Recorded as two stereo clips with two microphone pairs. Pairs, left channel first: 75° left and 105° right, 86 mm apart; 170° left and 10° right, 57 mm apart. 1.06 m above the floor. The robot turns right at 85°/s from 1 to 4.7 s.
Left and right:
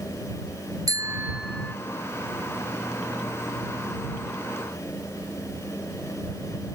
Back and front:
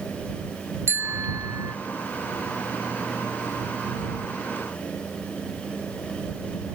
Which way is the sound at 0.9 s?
60° right.